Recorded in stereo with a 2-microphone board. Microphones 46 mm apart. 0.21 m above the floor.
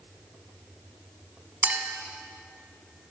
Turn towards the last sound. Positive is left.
turn(degrees=-40)  # may be behind; listen again after turning